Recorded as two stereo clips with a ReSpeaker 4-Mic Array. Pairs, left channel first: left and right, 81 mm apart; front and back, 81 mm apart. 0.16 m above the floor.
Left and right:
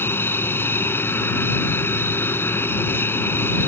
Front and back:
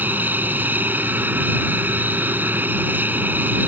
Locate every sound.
0.0 s an aircraft: 130° left